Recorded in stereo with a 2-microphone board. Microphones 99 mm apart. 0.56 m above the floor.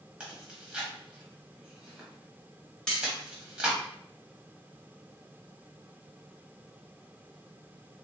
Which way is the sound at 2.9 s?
10° left (ahead or behind).